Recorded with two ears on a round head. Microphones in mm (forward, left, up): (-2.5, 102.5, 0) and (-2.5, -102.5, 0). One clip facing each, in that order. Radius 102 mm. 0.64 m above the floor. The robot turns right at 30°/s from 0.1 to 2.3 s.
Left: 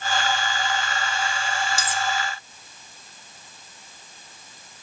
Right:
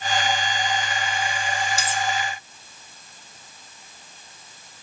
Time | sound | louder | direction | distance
1.8 | cutlery clinking | right 1 dB | 70° left (ahead or behind) | 2.0 m